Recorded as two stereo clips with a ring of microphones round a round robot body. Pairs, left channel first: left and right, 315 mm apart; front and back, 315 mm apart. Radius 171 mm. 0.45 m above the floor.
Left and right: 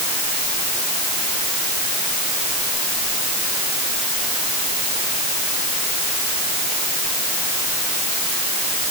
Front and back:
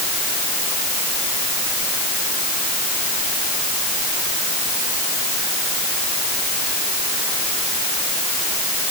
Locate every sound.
Only background noise.